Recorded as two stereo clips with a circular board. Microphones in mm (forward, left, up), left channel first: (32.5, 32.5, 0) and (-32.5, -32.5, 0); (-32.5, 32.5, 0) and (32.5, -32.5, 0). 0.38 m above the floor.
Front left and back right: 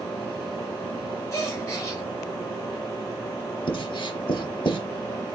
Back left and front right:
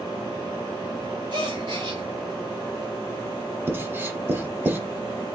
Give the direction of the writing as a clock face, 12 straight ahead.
11 o'clock.